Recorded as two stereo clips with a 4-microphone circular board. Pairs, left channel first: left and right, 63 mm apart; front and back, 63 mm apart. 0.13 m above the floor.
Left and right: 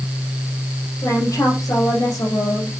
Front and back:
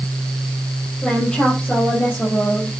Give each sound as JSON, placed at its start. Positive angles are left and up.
{"t": 1.0, "sound": "a woman speaking", "azimuth_deg": 75, "distance_m": 5.0}